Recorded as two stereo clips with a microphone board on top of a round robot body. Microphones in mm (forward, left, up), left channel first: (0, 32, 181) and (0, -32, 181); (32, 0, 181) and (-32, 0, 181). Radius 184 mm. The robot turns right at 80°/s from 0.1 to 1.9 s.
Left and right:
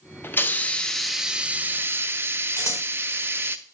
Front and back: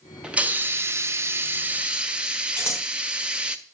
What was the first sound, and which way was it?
A hiss, 115° left.